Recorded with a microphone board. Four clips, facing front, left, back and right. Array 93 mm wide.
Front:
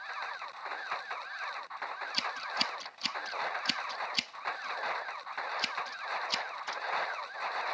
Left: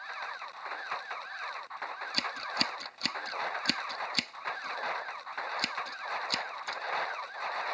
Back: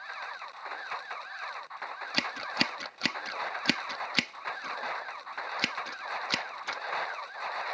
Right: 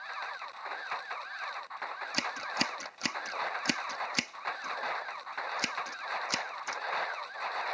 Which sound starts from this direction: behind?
Scissors, at 2.1 s.